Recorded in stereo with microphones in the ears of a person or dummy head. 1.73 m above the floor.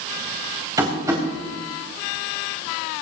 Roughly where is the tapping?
Centre.